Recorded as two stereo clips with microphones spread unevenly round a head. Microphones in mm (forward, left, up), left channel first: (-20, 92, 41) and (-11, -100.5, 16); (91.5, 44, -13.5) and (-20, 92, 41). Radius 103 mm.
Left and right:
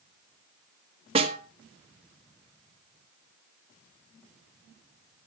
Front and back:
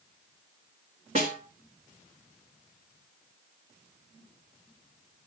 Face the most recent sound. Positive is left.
turn(degrees=-150)